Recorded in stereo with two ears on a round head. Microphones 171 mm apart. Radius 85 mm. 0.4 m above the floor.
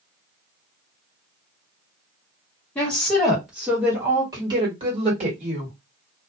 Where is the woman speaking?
5° left (ahead or behind), 1.8 m; by 5.8 s 45° right (ahead or behind), 1.8 m.